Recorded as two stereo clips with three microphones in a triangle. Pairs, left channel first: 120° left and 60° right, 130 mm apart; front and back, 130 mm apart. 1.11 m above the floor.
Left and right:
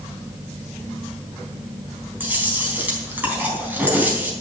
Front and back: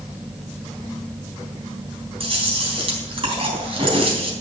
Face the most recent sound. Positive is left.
turn(degrees=-135)